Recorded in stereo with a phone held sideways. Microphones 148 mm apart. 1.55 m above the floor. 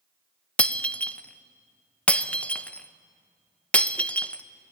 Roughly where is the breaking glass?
Centre.